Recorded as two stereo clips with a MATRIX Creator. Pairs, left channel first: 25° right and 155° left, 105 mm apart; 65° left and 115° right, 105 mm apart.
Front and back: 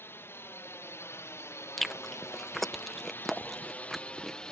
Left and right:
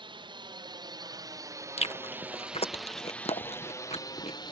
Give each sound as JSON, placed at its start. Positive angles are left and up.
{"t": 0.0, "sound": "a drone", "azimuth_deg": -85}
{"t": 1.8, "sound": "chewing", "azimuth_deg": 65}